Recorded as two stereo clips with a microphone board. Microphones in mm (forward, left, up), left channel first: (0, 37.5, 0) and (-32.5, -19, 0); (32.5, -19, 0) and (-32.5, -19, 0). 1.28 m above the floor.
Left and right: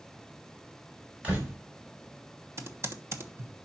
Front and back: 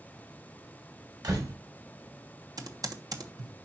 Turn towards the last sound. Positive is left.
turn(degrees=-165)